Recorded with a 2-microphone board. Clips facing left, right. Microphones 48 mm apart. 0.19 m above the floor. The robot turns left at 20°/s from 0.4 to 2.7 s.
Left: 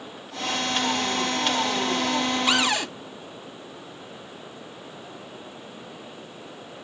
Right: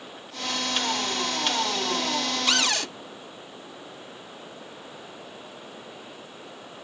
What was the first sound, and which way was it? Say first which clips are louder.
A cupboard door: left 1 dB; 15° left (ahead or behind).